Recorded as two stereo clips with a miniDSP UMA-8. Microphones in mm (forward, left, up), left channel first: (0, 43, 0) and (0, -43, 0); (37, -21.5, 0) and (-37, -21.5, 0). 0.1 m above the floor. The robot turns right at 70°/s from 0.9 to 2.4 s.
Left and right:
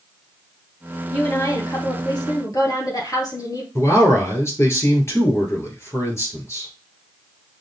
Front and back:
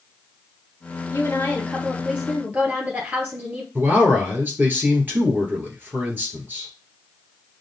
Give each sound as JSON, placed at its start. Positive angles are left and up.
{"t": 1.1, "sound": "a woman speaking", "azimuth_deg": 30, "distance_m": 1.8}
{"t": 3.8, "sound": "a man speaking", "azimuth_deg": 130, "distance_m": 1.5}